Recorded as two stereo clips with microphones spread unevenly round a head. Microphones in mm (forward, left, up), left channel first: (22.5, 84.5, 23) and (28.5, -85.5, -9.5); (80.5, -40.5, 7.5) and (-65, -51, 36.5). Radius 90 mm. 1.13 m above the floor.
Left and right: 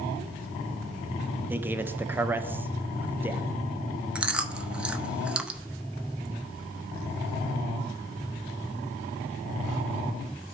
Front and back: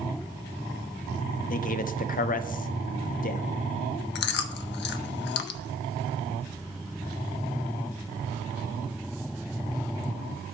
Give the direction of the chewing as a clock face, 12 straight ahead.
12 o'clock.